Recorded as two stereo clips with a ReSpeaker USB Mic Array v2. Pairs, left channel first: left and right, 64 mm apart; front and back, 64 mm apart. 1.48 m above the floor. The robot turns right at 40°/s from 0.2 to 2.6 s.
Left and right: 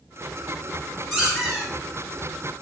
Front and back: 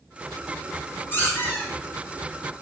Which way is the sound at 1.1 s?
30° right.